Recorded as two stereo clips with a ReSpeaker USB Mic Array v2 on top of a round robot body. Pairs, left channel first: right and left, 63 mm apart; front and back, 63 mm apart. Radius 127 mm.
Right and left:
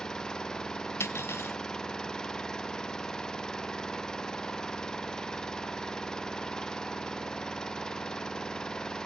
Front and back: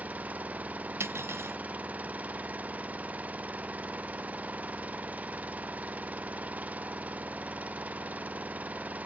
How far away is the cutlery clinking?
About 0.6 m.